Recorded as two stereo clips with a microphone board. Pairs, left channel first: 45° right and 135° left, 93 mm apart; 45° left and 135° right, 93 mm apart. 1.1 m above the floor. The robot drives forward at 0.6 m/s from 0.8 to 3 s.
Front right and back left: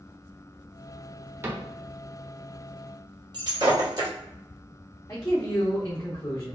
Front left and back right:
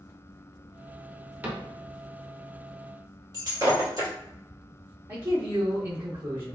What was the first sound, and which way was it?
A cupboard door, 170° left.